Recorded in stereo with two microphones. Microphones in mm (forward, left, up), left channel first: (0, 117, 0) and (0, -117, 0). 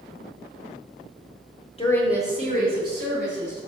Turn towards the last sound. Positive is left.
turn(degrees=-55)  # may be behind; listen again after turning